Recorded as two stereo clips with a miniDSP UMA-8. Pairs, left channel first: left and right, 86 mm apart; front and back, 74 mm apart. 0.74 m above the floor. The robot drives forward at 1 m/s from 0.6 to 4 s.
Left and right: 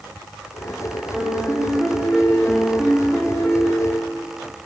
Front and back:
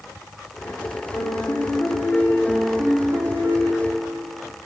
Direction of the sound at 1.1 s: 5° left.